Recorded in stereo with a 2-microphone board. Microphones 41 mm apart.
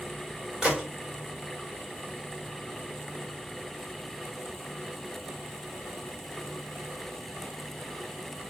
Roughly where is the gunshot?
Centre.